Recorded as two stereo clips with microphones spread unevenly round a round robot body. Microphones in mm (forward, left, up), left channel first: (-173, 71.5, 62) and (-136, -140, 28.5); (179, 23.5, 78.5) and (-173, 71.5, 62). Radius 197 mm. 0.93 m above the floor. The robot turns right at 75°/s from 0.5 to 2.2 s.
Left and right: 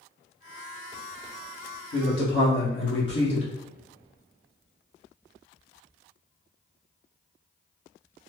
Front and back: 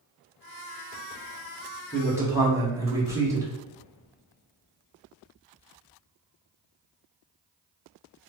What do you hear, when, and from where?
1.9 s a man speaking: 75° left, 1.4 m; by 3.5 s 95° left, 1.4 m